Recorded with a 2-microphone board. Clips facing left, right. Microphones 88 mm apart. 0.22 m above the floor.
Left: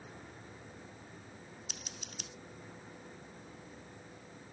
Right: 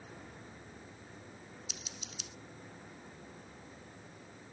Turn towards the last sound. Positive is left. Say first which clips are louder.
# even
turn(degrees=50)  # may be behind; listen again after turning